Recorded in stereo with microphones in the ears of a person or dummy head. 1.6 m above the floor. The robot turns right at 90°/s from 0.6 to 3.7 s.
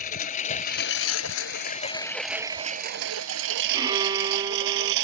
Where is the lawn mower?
40° left (ahead or behind); by 5.0 s 65° right (ahead or behind).